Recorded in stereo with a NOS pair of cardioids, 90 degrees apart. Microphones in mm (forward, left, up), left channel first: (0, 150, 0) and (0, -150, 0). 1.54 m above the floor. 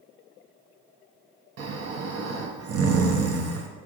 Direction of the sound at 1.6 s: 55° right.